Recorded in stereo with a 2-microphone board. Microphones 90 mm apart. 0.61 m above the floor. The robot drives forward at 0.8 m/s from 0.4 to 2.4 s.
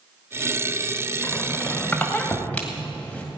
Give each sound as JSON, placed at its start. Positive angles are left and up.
{"t": 1.2, "sound": "a squeak", "side_deg": 25, "distance_m": 1.3}